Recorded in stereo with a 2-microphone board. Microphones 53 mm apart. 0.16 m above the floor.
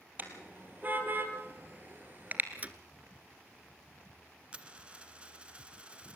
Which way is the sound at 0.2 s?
35° right (ahead or behind).